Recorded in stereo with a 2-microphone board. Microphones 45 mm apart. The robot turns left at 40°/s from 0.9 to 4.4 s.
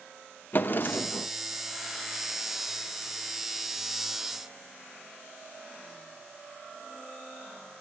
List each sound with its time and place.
0.5 s a drawer: 45° left (ahead or behind), 0.7 m; by 1.3 s 35° left (ahead or behind), 0.7 m